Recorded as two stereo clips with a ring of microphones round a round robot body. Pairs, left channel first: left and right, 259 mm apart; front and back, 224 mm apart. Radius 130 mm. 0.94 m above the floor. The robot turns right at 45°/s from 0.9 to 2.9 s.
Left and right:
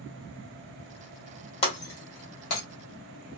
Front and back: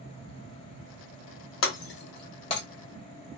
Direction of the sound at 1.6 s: 25° left.